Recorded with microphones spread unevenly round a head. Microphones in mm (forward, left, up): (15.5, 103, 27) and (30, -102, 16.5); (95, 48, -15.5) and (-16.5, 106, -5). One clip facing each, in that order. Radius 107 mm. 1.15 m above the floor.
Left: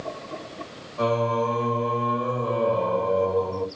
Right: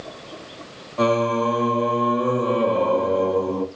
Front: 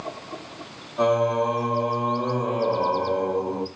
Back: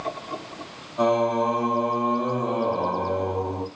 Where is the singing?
120° right, 2 m.